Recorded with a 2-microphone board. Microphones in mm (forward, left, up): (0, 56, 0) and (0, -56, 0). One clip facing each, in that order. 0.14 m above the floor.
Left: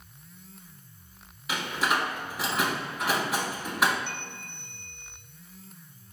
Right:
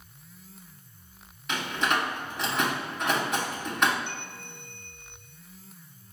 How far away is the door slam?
About 0.8 m.